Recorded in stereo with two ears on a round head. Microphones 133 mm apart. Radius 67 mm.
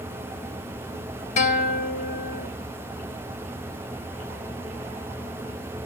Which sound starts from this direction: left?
A guitar, at 1.4 s.